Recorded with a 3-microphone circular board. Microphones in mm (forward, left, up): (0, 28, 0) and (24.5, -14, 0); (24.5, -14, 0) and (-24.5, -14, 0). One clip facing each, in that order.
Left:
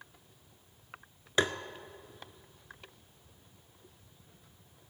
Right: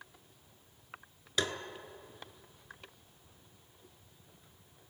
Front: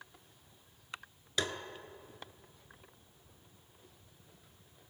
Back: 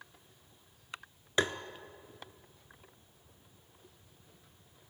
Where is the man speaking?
No man speaking in this recording.